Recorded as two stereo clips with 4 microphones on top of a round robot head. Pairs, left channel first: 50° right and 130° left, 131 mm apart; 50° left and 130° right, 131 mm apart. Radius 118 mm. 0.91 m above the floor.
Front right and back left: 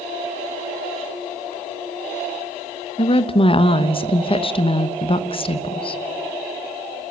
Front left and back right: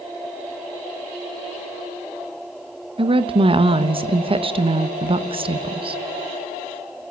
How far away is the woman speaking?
About 1.3 m.